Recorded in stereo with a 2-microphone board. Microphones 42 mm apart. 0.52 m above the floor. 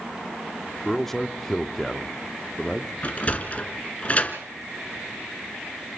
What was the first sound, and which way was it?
A man speaking, 10° left (ahead or behind).